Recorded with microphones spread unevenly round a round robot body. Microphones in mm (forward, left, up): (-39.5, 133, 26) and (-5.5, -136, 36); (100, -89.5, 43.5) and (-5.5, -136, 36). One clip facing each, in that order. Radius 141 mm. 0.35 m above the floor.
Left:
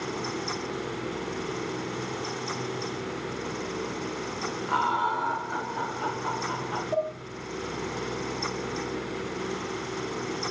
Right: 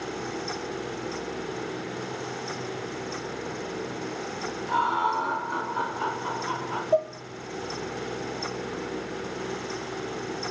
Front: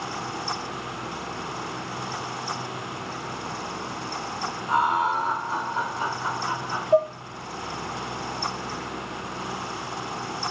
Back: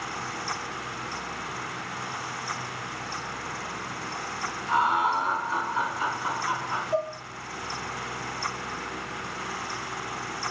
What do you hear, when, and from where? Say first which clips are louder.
4.7 s laughter: right 1 dB, front 1 dB; 55° left, 0.9 m; by 6.8 s 30° right, 1.6 m
6.9 s dishes clattering: right 5 dB, front 9 dB; 30° left, 1.0 m